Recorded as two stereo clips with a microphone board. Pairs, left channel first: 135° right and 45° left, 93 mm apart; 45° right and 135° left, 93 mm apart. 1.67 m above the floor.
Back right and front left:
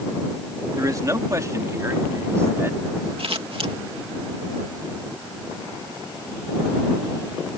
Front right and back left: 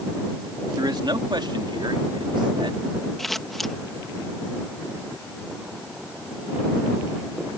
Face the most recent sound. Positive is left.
turn(degrees=40)